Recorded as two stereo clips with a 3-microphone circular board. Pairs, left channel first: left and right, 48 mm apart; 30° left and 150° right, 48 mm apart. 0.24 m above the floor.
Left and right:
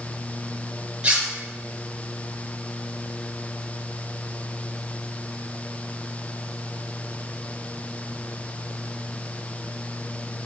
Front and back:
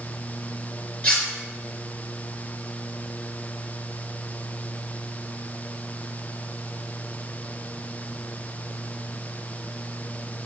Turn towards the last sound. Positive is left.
turn(degrees=-25)